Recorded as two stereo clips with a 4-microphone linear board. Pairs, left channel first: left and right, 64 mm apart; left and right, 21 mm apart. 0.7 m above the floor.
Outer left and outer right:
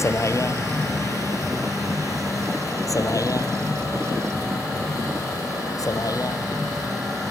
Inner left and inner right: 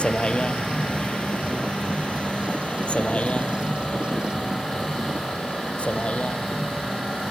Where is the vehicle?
50° left (ahead or behind); by 7.3 s 70° left (ahead or behind).